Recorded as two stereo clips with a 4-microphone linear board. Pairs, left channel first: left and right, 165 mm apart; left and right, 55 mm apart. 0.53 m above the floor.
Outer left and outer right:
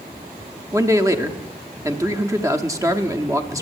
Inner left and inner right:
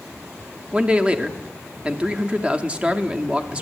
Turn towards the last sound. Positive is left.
turn(degrees=-20)  # may be behind; listen again after turning